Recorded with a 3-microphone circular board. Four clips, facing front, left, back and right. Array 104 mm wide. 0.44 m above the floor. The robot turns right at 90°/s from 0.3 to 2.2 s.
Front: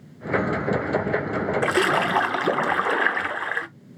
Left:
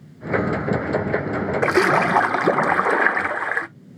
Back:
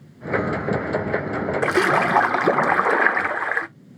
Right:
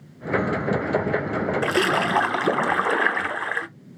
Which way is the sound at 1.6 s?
95° left.